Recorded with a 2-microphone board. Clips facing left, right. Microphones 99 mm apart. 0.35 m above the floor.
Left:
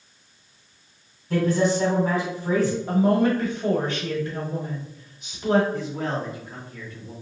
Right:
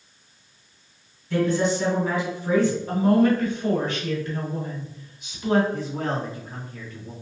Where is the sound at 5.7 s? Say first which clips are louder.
Even; 25° right (ahead or behind), 1.7 m.